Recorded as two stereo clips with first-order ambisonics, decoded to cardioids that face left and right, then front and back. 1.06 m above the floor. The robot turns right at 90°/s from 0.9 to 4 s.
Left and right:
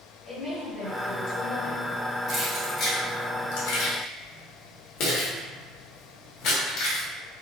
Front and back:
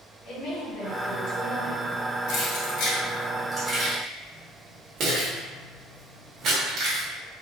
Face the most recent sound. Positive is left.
turn(degrees=130)